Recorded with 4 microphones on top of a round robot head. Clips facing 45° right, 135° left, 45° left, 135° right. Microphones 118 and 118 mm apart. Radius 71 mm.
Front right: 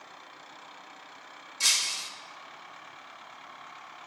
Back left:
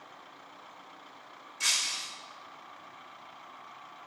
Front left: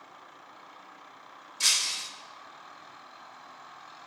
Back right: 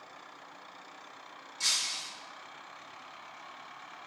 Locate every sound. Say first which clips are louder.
1.6 s breaking glass: front right 1 dB, front left 4 dB; 15° left, 0.7 m